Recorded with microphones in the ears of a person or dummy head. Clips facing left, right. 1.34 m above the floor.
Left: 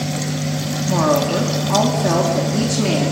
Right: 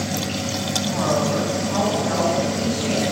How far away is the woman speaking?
About 3.5 m.